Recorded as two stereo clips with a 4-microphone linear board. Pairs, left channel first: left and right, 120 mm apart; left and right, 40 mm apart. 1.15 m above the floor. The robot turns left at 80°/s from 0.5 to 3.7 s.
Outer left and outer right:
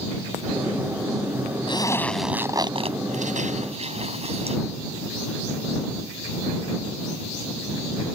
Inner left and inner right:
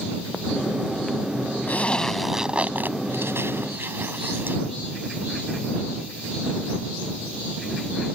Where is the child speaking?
No child speaking in this recording.